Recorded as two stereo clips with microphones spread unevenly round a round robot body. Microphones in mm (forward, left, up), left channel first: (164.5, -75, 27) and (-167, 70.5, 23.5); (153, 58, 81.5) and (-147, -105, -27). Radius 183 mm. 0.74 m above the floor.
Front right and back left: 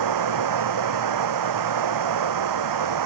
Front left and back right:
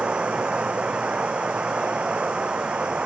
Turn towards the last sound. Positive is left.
turn(degrees=120)